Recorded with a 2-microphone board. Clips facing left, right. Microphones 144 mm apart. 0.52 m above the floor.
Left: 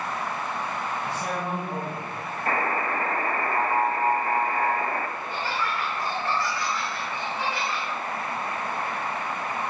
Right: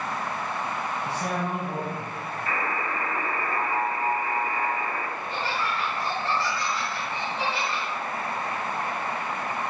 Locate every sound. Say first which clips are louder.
1.1 s a man speaking: right 2 dB; 30° right (ahead or behind), 4 m
2.5 s a buzzer: left 4 dB; 50° left (ahead or behind), 1.0 m
5.2 s laughter: even; 30° right (ahead or behind), 3.5 m